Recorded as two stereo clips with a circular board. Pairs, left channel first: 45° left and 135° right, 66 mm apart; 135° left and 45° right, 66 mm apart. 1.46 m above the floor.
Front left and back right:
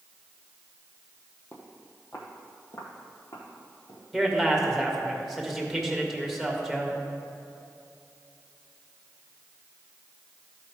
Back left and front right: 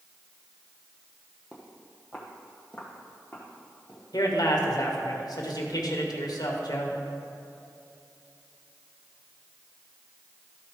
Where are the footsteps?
15° left, 1.8 m; by 4.0 s 65° left, 3 m.